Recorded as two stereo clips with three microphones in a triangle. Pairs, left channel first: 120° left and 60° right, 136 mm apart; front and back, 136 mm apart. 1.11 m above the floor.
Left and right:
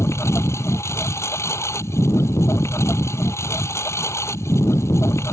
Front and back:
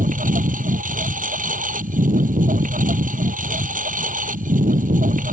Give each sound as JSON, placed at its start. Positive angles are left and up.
{"t": 0.0, "sound": "a lawn mower", "azimuth_deg": -170}